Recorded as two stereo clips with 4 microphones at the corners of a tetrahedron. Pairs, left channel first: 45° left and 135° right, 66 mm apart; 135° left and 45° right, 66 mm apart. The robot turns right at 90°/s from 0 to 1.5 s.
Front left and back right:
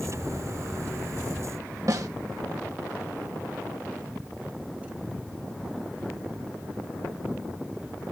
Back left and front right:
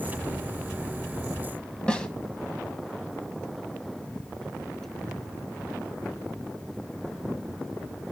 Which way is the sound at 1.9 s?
150° right.